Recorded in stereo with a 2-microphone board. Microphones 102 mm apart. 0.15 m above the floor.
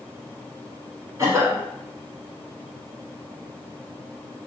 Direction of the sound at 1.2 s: 30° right (ahead or behind).